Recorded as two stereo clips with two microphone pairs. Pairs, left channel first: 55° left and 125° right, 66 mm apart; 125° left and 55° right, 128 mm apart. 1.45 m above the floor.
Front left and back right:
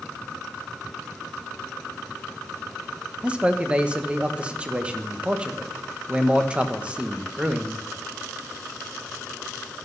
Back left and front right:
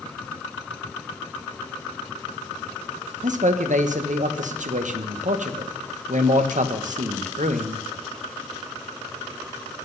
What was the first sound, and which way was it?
A man speaking, 50° right.